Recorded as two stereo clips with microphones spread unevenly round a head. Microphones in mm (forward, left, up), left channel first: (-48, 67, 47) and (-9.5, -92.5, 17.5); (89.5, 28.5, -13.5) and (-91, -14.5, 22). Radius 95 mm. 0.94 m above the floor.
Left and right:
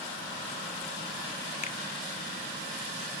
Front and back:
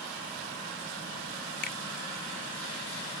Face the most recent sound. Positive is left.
turn(degrees=50)